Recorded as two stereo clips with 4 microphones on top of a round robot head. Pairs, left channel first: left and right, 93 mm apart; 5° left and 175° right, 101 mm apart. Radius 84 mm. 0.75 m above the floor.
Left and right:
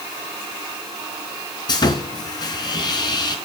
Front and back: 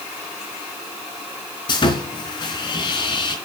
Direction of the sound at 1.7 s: 45° left.